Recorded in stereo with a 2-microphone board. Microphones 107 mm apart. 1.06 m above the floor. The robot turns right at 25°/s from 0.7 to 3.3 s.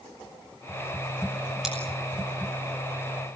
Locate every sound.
1.6 s scissors: 5° right (ahead or behind), 6 m; by 1.8 s 10° right (ahead or behind), 6 m